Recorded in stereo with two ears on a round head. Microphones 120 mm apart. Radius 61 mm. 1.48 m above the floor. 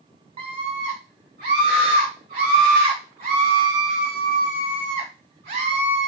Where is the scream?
35° right (ahead or behind), 0.7 m; by 6.1 s 55° right (ahead or behind), 3.5 m.